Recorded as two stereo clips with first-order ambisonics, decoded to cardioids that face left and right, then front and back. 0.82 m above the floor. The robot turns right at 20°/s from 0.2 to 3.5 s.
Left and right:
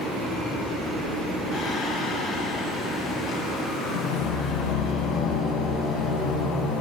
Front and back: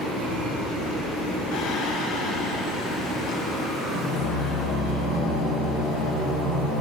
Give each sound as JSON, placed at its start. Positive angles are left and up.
{"t": 1.5, "sound": "singing", "azimuth_deg": -5, "distance_m": 6.5}